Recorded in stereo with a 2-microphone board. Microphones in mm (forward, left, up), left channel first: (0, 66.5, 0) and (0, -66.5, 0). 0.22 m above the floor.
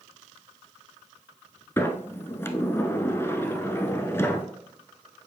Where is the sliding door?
20° left (ahead or behind), 0.6 m.